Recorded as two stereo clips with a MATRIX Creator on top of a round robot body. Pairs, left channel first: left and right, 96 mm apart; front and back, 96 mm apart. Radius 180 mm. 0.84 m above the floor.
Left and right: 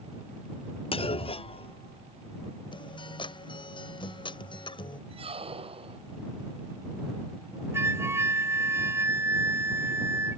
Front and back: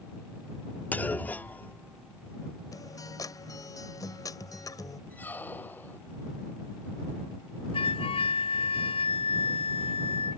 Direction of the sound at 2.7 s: 55° left.